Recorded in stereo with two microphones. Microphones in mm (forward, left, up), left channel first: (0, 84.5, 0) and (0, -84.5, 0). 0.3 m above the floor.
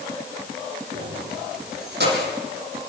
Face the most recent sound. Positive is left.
turn(degrees=-70)  # may be behind; listen again after turning